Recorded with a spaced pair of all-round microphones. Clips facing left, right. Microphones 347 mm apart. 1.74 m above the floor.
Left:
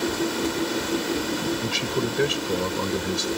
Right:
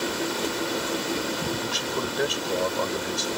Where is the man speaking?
35° left (ahead or behind).